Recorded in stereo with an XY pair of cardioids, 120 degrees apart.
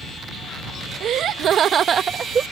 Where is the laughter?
65° right; by 2.4 s 40° right.